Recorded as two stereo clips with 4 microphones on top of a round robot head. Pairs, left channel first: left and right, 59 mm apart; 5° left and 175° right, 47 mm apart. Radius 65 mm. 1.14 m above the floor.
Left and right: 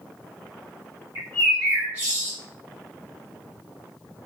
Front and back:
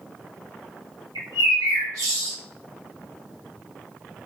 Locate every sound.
1.1 s a bird: 150° right, 1.1 m